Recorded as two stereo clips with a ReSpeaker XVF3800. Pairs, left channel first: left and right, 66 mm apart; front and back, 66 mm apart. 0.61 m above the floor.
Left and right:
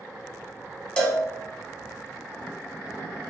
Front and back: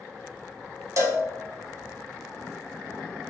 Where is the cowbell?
160° left, 0.7 m.